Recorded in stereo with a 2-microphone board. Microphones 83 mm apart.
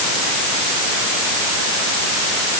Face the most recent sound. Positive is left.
No sound to turn to.